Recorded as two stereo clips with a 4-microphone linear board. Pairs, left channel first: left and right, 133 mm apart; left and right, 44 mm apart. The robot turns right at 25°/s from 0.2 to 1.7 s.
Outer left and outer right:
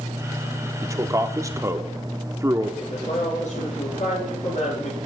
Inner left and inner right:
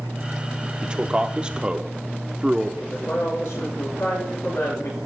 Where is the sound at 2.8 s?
70° left (ahead or behind), 8 m.